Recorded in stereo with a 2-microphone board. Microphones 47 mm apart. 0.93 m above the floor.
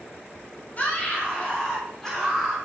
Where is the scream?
35° left (ahead or behind), 2.5 m; by 2.6 s 5° left (ahead or behind), 3 m.